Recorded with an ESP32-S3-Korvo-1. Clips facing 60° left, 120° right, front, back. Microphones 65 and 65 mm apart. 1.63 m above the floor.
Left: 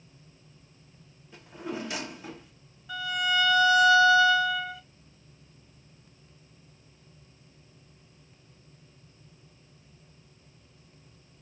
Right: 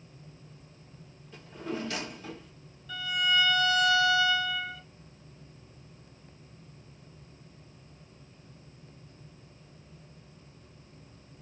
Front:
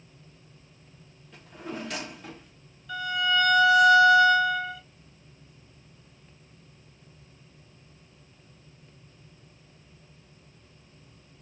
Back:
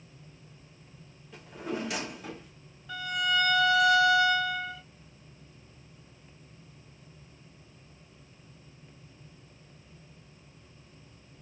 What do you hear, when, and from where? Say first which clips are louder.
1.3 s a drawer: even, back 2 dB; 100° left, 1.0 m
2.9 s a violin: left 1 dB, front 3 dB; 120° left, 1.8 m